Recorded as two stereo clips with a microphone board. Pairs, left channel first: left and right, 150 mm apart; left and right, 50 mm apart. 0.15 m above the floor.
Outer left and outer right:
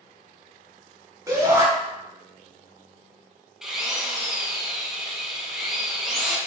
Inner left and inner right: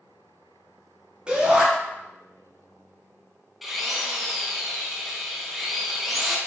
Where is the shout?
20° right (ahead or behind), 1.2 m.